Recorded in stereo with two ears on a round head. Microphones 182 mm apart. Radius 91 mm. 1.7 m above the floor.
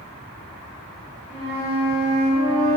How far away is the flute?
About 1.5 m.